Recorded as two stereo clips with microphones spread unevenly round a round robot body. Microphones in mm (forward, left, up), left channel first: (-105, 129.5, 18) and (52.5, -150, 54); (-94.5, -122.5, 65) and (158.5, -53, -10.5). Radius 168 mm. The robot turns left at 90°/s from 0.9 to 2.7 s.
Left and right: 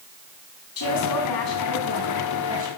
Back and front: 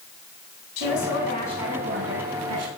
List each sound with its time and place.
0.8 s a woman speaking: 160° left, 5 m; by 2.7 s straight ahead, 5 m